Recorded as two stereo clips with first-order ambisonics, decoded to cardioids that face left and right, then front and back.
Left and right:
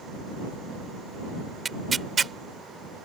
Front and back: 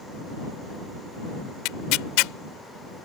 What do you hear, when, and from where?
1.6 s tearing paper: 15° right